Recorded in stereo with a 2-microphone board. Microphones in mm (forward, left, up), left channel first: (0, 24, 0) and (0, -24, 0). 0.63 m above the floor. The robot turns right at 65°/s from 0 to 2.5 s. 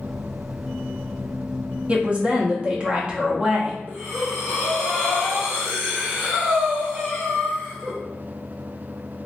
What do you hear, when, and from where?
1.9 s a woman speaking: 100° right, 0.7 m; by 3.8 s 60° right, 0.7 m
3.9 s breathing: 35° right (ahead or behind), 1.4 m